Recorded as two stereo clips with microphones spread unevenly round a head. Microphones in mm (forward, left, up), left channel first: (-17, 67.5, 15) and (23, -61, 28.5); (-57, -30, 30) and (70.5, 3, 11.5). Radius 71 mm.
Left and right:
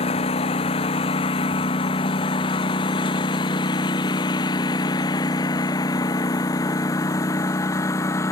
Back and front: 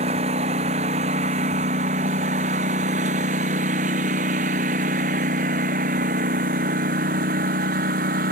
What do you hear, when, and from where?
0.0 s a lawn mower: 60° left; by 8.3 s 40° left